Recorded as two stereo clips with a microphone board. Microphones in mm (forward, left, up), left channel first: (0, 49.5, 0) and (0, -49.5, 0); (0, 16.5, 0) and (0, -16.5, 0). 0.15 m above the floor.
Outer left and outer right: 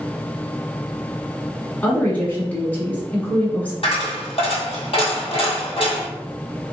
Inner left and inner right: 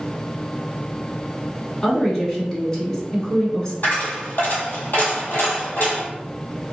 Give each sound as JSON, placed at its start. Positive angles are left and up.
{"t": 1.8, "sound": "a woman speaking", "side_deg": 20, "distance_m": 1.1}
{"t": 3.8, "sound": "a dropped coin", "side_deg": 65, "distance_m": 1.5}